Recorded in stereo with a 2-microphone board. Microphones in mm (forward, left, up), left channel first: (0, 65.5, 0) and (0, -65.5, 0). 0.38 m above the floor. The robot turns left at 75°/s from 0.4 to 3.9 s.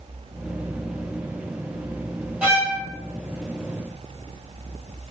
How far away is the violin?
About 1.0 m.